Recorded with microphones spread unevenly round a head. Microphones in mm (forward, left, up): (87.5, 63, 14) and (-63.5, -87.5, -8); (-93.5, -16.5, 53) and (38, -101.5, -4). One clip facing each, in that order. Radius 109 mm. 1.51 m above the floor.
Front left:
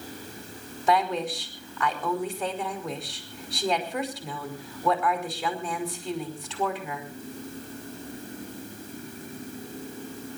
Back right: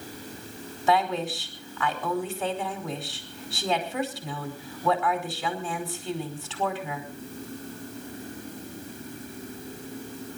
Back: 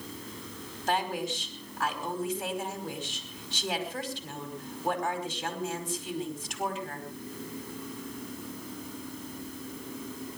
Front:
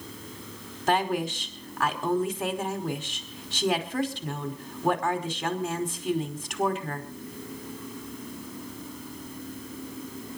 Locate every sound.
0.9 s a woman speaking: 45° right, 5 m